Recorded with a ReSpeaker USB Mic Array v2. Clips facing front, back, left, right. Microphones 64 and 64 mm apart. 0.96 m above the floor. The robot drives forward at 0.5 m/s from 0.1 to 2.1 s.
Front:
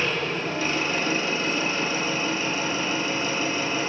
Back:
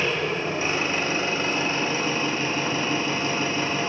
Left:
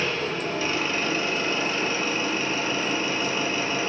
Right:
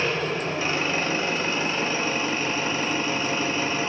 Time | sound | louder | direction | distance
0.0 | an engine running | back 1 dB, right 1 dB | 115° right | 0.7 m